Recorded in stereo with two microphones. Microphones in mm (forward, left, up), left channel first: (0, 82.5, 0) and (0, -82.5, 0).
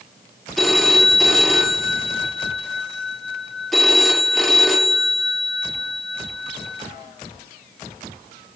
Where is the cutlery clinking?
No cutlery clinking in this recording.